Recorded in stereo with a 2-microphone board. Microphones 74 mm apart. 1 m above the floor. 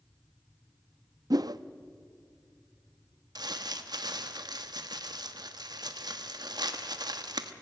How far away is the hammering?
I don't hear hammering.